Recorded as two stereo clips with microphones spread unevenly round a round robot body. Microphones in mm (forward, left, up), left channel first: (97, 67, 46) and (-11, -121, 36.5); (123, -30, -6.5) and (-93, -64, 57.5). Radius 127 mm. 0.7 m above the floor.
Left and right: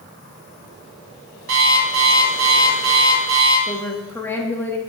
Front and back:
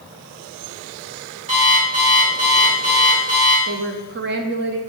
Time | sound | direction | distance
1.5 | an alarm clock | 115° right | 3.5 m
3.7 | a woman speaking | 140° left | 0.8 m